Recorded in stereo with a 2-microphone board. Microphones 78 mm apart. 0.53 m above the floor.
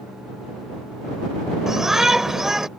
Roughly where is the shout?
Centre.